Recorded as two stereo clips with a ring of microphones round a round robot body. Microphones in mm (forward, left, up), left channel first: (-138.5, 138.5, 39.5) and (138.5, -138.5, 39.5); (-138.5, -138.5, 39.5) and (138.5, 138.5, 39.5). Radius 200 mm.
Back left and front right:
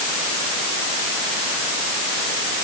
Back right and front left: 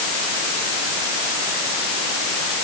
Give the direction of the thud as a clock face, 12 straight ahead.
No thud in this recording.